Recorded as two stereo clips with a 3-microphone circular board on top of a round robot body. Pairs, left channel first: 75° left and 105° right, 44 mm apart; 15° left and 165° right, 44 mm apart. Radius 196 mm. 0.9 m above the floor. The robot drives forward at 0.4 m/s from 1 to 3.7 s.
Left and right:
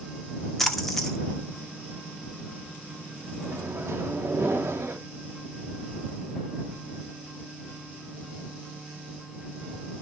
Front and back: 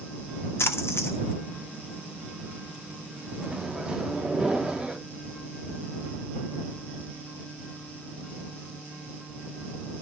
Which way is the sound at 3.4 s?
85° right.